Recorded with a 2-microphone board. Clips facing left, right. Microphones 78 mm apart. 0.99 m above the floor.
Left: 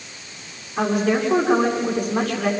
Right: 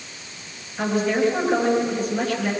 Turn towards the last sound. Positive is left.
turn(degrees=85)